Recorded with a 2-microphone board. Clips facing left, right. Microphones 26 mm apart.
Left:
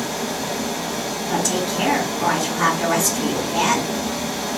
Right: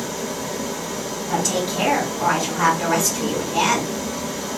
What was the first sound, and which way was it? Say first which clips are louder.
Running water: left 2 dB; 75° left (ahead or behind).